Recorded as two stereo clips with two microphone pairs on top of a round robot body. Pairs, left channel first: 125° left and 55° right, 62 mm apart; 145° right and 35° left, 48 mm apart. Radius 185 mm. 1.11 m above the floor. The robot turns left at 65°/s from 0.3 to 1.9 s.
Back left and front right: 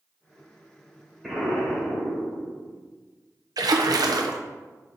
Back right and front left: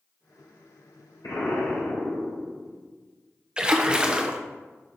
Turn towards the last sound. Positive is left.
turn(degrees=-35)